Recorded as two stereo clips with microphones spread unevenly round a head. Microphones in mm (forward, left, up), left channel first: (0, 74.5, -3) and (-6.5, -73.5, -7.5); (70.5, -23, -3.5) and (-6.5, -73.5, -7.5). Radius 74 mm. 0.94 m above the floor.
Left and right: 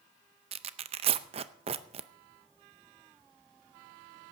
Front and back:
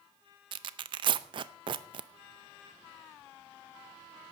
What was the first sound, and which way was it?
Tearing paper, 135° right.